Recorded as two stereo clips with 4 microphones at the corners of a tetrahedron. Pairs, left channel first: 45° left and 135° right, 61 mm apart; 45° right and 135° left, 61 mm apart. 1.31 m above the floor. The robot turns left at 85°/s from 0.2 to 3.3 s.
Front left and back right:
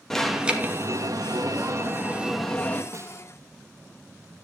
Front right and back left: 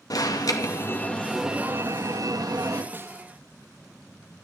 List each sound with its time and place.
0.1 s an alarm: 35° right, 2.5 m; by 2.8 s 100° left, 2.5 m
2.9 s a snare drum: 165° right, 1.2 m; by 3.2 s 165° left, 1.2 m